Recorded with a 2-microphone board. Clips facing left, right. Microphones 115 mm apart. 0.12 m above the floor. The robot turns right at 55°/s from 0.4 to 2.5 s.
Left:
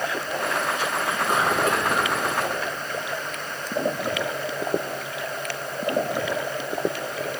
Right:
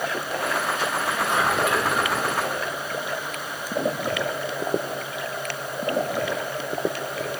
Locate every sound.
1.0 s whispering: 65° left, 2.0 m; by 2.1 s 125° left, 2.0 m